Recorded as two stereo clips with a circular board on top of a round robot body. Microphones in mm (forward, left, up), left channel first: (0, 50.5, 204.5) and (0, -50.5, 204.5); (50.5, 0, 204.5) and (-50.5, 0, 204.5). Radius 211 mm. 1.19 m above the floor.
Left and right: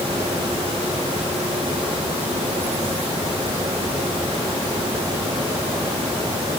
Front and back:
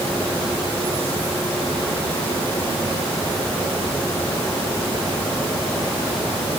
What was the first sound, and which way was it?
Only background noise.